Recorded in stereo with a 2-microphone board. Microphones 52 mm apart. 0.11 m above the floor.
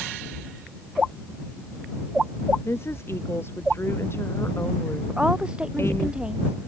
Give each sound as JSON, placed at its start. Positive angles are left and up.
{"t": 2.6, "sound": "a woman speaking", "side_deg": 50}
{"t": 5.1, "sound": "a woman speaking", "side_deg": -15}